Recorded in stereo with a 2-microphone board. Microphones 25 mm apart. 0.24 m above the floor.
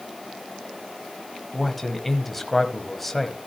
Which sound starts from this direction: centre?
A man speaking, at 1.5 s.